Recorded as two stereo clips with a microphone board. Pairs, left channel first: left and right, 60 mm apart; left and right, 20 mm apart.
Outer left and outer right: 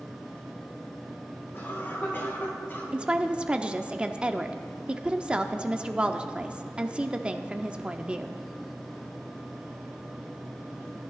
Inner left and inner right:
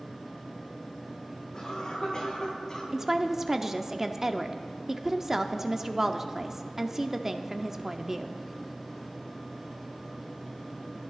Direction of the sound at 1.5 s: 35° left (ahead or behind).